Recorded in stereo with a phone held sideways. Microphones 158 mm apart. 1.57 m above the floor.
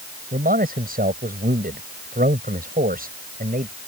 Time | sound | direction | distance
0.3 | a man speaking | 70° right (ahead or behind) | ?